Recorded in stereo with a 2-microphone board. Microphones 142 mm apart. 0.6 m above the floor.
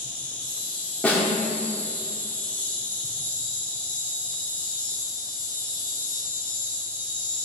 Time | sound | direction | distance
0.0 | an insect | 10° left (ahead or behind) | 2 m
1.0 | a snare drum | 10° left (ahead or behind) | 1.9 m